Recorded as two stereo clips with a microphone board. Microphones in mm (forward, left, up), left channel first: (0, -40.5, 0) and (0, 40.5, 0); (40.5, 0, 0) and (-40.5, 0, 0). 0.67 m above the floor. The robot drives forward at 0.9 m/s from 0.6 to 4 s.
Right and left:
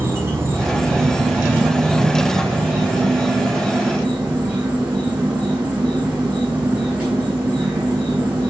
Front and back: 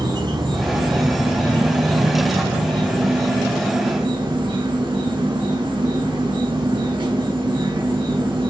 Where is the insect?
150° left, 6 m; by 8.5 s 160° left, 8.5 m.